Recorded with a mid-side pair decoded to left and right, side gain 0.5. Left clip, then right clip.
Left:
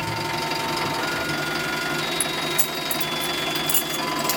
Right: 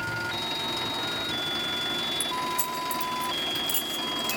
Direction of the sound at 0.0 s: 45° left.